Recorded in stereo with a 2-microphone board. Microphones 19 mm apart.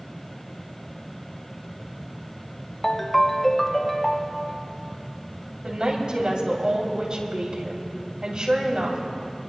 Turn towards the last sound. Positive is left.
turn(degrees=-45)  # may be behind; listen again after turning